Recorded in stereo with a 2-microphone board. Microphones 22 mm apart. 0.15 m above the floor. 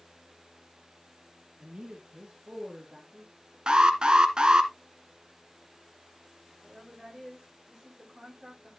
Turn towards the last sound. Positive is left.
turn(degrees=-15)  # may be behind; listen again after turning